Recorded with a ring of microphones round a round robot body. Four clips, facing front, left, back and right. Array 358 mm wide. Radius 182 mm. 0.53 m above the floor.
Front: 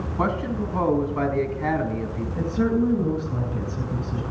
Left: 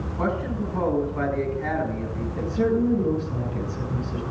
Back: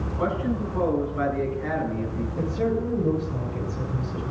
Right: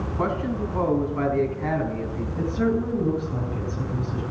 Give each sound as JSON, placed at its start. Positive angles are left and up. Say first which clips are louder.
{"t": 0.2, "sound": "a man speaking", "louder": "even, front 1 dB", "azimuth_deg": 0, "distance_m": 5.0}
{"t": 2.4, "sound": "a woman speaking", "louder": "left 2 dB, front 4 dB", "azimuth_deg": 15, "distance_m": 8.5}